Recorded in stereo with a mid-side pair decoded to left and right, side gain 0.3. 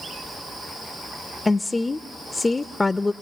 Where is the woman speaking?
30° left, 0.5 m.